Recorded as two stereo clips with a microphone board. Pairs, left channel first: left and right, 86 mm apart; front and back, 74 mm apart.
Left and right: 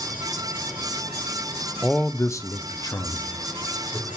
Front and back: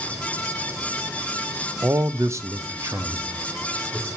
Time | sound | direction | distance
1.8 | a man speaking | 175° left | 0.6 m